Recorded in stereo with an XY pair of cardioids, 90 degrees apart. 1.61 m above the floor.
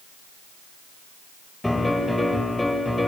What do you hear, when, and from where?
1.6 s a piano: 15° left, 7 m